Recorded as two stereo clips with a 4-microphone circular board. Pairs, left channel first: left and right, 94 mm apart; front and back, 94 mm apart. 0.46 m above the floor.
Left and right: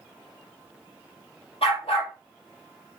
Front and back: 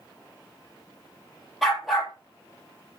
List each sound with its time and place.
1.6 s a dog barking: 90° left, 3.5 m